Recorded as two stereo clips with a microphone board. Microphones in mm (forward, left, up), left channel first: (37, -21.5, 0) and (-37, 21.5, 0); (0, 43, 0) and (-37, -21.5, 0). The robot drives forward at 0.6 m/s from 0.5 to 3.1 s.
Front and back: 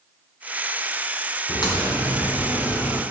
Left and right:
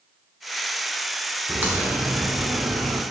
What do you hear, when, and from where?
1.5 s a crack: 55° right, 3 m; by 3.0 s 75° right, 2.5 m